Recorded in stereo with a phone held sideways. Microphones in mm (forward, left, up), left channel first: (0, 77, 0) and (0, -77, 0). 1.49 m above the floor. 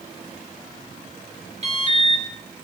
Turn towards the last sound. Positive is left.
turn(degrees=-45)  # may be behind; listen again after turning